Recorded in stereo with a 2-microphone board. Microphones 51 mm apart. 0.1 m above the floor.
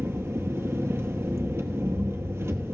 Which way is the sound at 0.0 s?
55° right (ahead or behind).